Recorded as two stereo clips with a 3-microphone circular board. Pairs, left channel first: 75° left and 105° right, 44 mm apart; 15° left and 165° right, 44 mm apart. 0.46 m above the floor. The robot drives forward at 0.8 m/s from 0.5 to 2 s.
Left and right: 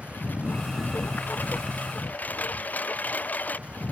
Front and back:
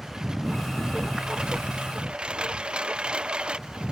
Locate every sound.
0.0 s a lawn mower: 120° left; by 3.9 s 125° left